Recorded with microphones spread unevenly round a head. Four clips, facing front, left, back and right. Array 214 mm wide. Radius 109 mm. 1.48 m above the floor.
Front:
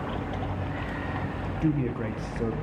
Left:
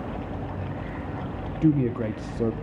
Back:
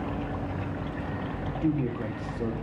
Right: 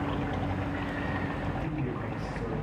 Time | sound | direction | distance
1.6 | a man speaking | 85° left | 0.9 m